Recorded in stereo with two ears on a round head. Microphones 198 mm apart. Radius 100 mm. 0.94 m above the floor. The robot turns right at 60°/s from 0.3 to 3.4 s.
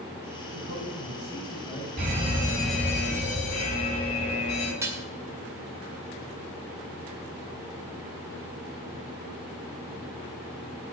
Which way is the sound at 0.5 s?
95° right.